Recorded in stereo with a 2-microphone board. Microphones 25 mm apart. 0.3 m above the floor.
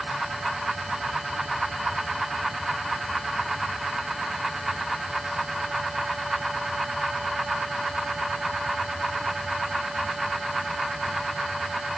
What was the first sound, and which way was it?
Only background noise.